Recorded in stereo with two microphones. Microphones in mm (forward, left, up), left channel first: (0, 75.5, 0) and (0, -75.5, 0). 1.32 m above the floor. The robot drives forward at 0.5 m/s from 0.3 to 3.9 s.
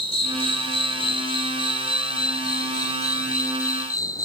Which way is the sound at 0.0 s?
35° left (ahead or behind).